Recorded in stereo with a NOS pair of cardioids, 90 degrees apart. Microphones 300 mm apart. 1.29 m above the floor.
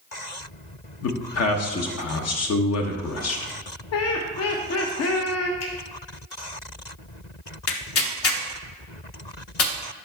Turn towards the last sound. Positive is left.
turn(degrees=50)